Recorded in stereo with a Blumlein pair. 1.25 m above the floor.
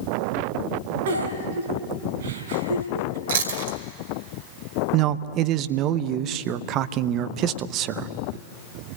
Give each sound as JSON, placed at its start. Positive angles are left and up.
{"t": 1.1, "sound": "a giggle", "azimuth_deg": -60, "distance_m": 4.5}
{"t": 3.3, "sound": "chewing", "azimuth_deg": -65, "distance_m": 2.5}
{"t": 4.9, "sound": "a man speaking", "azimuth_deg": -35, "distance_m": 1.0}